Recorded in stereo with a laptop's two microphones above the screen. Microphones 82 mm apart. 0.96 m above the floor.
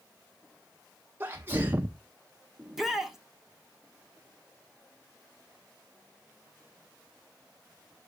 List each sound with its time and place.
1.2 s a sneeze: 25° right (ahead or behind), 0.5 m
2.6 s a shout: 5° right (ahead or behind), 1.2 m